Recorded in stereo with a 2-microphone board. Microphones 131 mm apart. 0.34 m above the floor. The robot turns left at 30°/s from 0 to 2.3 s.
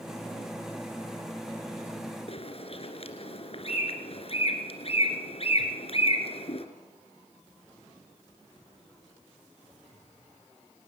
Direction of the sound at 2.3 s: 50° left (ahead or behind).